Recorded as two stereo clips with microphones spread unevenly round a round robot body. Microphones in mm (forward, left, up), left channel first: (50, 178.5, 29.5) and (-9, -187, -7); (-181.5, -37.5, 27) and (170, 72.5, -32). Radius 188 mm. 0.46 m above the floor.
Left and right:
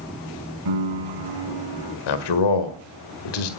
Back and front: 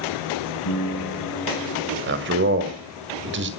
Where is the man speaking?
70° left, 1.8 m.